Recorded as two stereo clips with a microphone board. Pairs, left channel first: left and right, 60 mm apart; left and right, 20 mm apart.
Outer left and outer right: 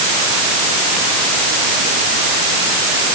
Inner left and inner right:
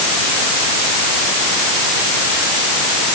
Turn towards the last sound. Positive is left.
No sound to turn to.